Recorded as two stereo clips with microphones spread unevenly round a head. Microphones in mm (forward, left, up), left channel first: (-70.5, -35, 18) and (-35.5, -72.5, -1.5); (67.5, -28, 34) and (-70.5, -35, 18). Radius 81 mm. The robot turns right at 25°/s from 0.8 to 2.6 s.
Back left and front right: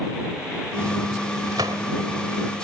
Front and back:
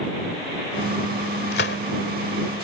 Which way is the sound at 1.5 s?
15° left.